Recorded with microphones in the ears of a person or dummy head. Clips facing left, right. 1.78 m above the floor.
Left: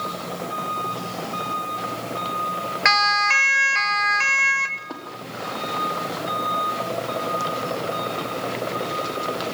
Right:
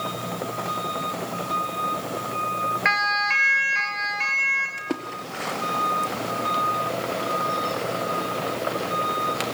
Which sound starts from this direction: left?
A siren, at 2.9 s.